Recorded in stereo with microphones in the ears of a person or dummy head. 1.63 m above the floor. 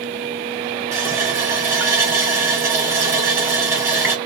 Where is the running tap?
15° right (ahead or behind), 1.0 m.